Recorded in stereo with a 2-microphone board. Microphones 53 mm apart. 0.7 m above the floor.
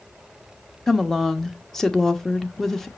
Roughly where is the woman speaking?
Centre.